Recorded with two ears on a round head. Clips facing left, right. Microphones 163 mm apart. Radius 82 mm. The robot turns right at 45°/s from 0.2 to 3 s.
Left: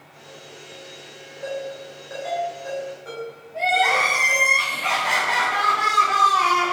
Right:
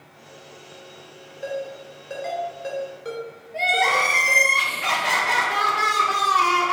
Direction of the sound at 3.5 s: 70° right (ahead or behind).